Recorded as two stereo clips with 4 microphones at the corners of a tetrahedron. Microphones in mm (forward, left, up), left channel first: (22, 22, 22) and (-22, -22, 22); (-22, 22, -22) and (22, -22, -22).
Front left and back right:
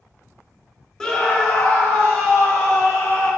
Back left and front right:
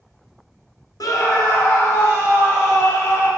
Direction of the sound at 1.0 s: 125° left.